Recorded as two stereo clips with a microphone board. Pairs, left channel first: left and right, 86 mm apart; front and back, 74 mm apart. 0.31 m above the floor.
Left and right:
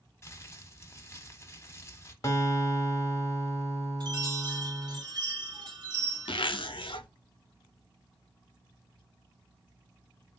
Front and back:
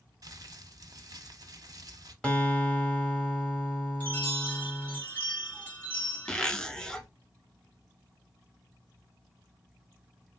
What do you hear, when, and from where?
0.2 s crumpling: 150° left, 0.6 m
2.2 s a guitar: 70° left, 1.0 m
4.0 s a chime: 70° right, 1.9 m
6.3 s a zipper: 80° left, 0.5 m